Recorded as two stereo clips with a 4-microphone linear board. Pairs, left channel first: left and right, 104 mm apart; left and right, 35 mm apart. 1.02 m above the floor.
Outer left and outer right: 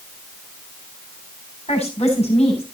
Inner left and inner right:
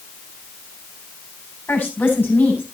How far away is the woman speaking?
About 7.5 m.